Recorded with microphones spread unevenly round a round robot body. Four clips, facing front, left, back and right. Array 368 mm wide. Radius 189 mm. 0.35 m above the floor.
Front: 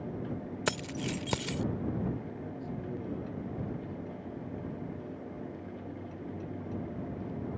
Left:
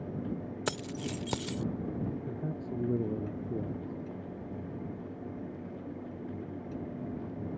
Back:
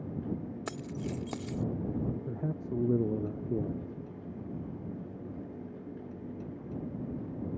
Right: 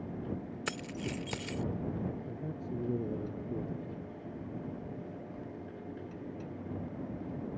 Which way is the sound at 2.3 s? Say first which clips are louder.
Left 3 dB, back 4 dB; 160° left.